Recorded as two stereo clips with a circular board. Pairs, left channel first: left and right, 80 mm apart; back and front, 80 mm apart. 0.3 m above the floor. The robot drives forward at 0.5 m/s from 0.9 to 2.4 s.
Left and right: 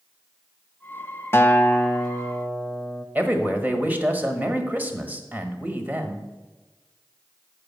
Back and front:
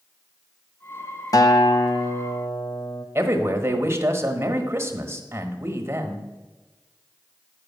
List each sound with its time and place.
1.3 s a guitar: 145° left, 0.6 m; by 3.0 s 165° left, 1.0 m
3.1 s a man speaking: 35° right, 1.2 m